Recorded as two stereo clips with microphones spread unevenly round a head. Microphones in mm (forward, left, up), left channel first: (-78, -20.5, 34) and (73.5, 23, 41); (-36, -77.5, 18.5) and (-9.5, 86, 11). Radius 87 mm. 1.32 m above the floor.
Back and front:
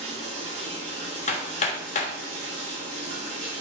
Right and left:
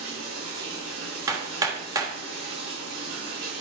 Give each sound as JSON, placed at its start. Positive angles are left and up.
{"t": 0.0, "sound": "running water", "azimuth_deg": 65, "distance_m": 5.0}
{"t": 1.3, "sound": "hammering", "azimuth_deg": 150, "distance_m": 1.4}